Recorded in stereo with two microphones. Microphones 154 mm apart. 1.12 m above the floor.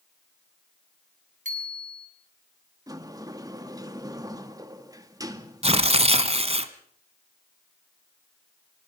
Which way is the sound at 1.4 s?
55° right (ahead or behind).